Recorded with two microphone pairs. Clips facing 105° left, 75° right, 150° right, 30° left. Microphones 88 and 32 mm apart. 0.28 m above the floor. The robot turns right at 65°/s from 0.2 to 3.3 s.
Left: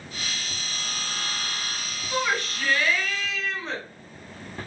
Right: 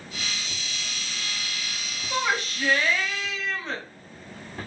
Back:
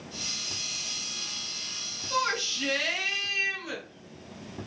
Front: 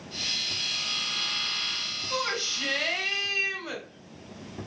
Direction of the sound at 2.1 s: 70° right.